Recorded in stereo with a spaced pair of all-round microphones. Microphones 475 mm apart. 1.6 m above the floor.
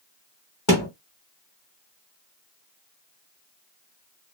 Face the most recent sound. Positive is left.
turn(degrees=40)  # may be behind; listen again after turning